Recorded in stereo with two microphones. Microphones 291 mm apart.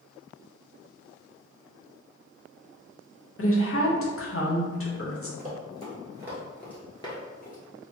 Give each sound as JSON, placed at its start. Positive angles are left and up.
{"t": 3.4, "sound": "a woman speaking", "side_deg": 45, "distance_m": 0.7}
{"t": 5.4, "sound": "running footsteps", "side_deg": -30, "distance_m": 1.5}